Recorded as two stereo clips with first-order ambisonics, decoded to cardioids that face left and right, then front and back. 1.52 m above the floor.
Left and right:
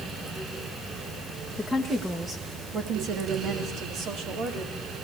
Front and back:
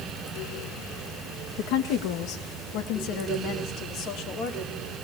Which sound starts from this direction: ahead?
A woman speaking, at 1.6 s.